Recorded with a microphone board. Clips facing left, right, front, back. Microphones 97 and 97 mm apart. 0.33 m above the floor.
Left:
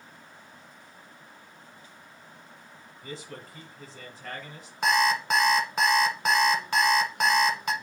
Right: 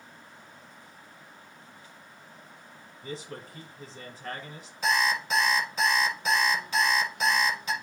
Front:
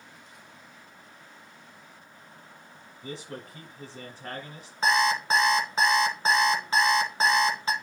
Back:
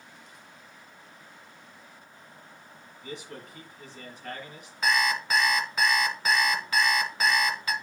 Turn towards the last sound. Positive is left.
turn(degrees=60)